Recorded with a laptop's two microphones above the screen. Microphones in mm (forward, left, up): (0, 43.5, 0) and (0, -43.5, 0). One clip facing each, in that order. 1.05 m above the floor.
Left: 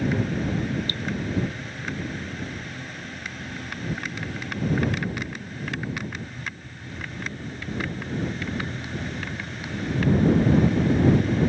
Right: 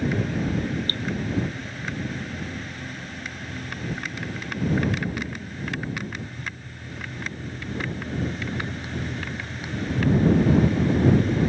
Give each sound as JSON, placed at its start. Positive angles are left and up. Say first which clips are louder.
{"t": 0.9, "sound": "dripping", "louder": "right 1 dB", "side_deg": -55}